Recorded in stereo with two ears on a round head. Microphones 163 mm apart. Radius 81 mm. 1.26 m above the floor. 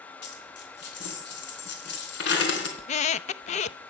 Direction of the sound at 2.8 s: 40° left (ahead or behind).